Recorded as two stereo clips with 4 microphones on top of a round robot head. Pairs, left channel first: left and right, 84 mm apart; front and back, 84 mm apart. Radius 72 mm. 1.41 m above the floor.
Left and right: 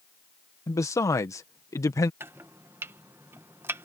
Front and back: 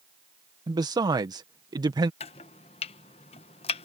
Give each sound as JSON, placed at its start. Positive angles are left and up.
{"t": 0.7, "sound": "a man speaking", "azimuth_deg": 140}
{"t": 2.2, "sound": "chopping", "azimuth_deg": -20}